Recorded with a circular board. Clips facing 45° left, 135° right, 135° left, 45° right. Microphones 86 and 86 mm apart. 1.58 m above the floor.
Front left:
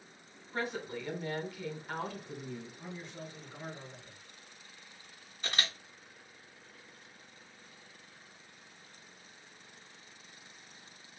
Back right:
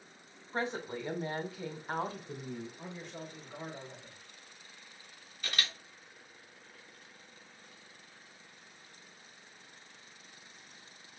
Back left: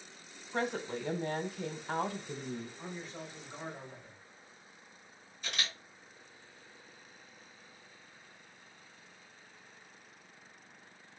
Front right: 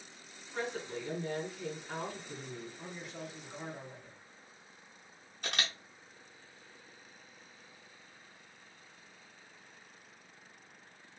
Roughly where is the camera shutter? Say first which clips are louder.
Front left 2 dB, front right 2 dB; ahead.